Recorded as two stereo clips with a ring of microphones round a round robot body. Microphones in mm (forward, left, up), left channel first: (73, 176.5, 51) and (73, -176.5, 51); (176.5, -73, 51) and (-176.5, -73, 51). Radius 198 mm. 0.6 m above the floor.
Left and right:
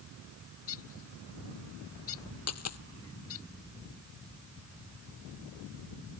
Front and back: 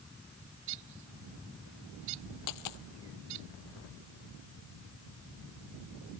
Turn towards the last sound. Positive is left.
turn(degrees=45)